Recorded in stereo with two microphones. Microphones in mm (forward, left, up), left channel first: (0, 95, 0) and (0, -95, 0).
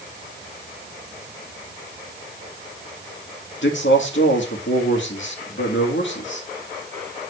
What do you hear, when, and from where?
3.6 s a man speaking: 80° left, 1.9 m